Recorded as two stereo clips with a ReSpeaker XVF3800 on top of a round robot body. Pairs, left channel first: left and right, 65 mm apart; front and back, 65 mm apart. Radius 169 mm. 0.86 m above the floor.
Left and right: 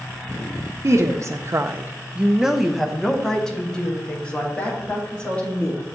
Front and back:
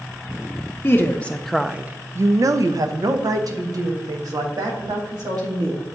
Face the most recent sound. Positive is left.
turn(degrees=160)